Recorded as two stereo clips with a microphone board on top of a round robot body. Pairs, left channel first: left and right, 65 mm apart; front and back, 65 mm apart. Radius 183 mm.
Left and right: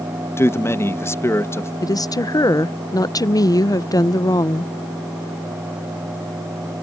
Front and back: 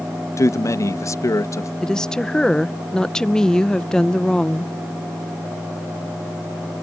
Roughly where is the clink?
I don't hear a clink.